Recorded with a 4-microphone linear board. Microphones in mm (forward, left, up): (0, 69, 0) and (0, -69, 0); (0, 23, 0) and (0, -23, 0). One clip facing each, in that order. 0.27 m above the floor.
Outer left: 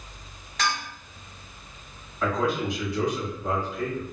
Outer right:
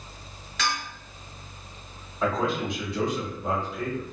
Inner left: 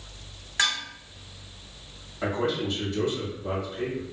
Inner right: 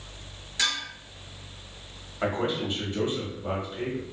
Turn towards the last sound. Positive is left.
turn(degrees=-25)  # may be behind; listen again after turning